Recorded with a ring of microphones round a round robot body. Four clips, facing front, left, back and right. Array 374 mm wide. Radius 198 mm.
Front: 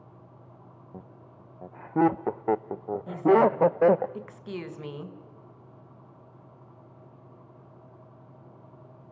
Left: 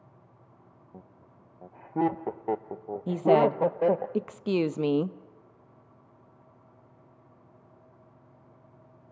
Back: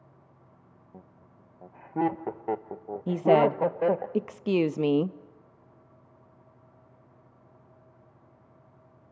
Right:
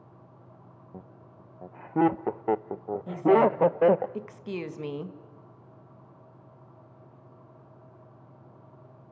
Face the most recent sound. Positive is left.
turn(degrees=145)